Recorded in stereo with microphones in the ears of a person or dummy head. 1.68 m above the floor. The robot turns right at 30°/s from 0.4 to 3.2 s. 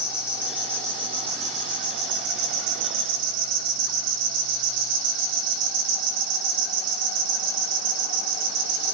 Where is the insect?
175° right, 1.3 m; by 8.9 s 90° right, 1.3 m.